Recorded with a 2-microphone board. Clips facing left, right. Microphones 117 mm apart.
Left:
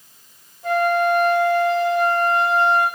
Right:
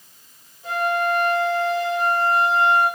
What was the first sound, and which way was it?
A flute, 50° left (ahead or behind).